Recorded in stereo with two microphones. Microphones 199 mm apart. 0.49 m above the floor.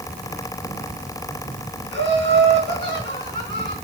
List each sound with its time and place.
1.9 s laughter: 80° right, 4 m; by 3.8 s 55° right (ahead or behind), 4.5 m